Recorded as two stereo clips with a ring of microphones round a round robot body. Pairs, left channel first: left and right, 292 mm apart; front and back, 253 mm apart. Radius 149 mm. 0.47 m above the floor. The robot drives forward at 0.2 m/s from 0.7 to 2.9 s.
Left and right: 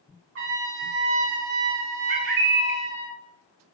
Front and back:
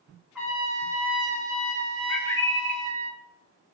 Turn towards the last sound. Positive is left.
turn(degrees=-95)